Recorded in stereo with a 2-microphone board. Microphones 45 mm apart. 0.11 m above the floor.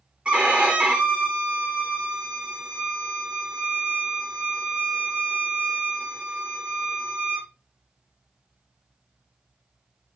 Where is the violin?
25° right (ahead or behind), 2.5 m.